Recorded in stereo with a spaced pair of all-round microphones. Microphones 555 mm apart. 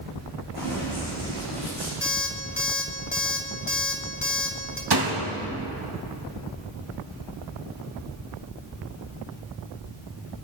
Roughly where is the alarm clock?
Left.